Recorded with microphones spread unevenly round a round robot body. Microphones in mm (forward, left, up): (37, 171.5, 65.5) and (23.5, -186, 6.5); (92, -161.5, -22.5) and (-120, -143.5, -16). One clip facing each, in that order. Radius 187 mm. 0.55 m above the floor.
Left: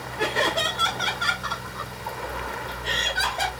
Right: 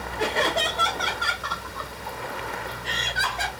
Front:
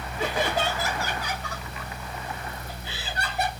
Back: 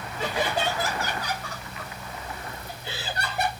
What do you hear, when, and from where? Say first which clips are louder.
0.2 s laughter: even, front 1 dB; 5° left, 1.3 m; by 3.5 s 135° left, 1.3 m